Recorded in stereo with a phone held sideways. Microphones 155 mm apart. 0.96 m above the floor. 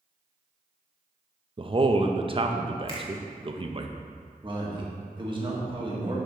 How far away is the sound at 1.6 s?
About 0.7 m.